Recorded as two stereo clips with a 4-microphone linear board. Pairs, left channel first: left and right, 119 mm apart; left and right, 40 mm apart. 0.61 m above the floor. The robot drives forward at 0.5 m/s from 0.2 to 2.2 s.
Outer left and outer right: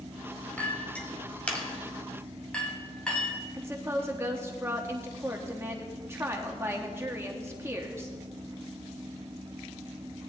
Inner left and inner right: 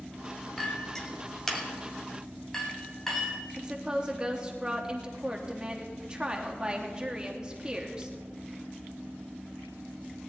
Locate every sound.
0.6 s a clink: 15° left (ahead or behind), 1.7 m; by 3.4 s 10° left (ahead or behind), 2.5 m
3.6 s a woman speaking: 20° right (ahead or behind), 1.1 m